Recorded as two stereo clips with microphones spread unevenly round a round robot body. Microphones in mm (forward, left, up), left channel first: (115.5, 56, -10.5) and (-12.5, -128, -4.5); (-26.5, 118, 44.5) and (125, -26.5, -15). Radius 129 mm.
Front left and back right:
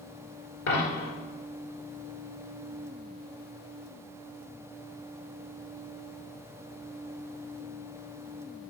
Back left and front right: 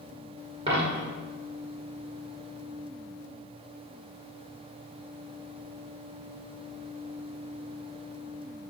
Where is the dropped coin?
25° left, 1.5 m.